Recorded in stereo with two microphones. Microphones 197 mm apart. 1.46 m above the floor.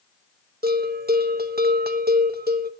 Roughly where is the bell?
Right.